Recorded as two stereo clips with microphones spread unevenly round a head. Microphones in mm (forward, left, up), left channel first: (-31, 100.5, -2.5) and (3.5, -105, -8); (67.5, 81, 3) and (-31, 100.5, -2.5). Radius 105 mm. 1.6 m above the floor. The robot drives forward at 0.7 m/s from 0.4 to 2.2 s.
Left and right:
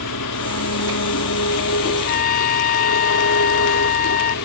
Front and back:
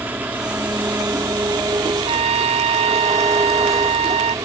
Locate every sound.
0.0 s an engine running: 95° left; by 4.5 s 115° left
2.0 s a trumpet: 145° left; by 4.3 s 150° left